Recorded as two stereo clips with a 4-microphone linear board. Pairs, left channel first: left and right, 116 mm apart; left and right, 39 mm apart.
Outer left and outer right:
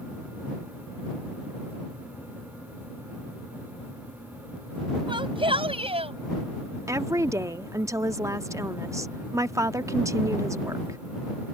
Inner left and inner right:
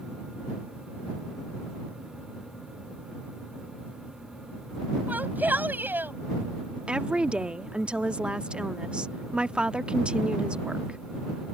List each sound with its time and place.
5.1 s a shout: 50° right (ahead or behind); by 6.1 s 65° right (ahead or behind)
6.9 s a woman speaking: 30° right (ahead or behind)